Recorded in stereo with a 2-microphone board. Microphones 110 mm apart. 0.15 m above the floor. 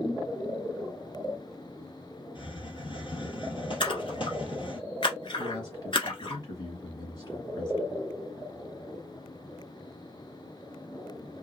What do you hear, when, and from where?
2.4 s a hiss: 55° left (ahead or behind), 1.4 m
3.8 s a splash: 55° left (ahead or behind), 1.2 m
5.4 s a man speaking: 40° left (ahead or behind), 2 m